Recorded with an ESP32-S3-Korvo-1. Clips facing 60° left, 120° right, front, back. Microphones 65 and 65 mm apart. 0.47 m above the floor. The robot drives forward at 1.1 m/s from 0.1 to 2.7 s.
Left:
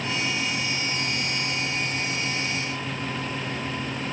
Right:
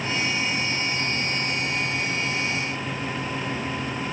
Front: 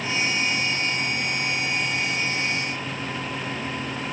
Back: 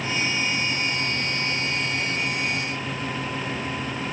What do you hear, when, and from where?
Only background noise.